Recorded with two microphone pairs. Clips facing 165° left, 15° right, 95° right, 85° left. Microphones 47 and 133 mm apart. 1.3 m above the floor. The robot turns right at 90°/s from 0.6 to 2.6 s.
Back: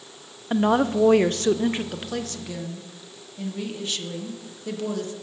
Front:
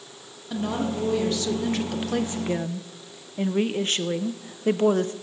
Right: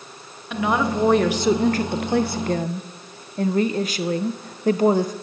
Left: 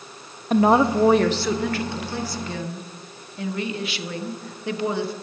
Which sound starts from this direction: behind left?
A woman speaking, at 0.5 s.